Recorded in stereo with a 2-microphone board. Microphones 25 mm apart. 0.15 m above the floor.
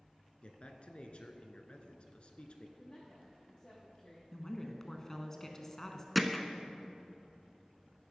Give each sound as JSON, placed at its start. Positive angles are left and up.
{"t": 0.4, "sound": "a man speaking", "side_deg": 45, "distance_m": 1.6}
{"t": 2.8, "sound": "a woman speaking", "side_deg": 30, "distance_m": 5.0}
{"t": 4.3, "sound": "a woman speaking", "side_deg": 15, "distance_m": 1.3}
{"t": 6.2, "sound": "hammering", "side_deg": 5, "distance_m": 0.9}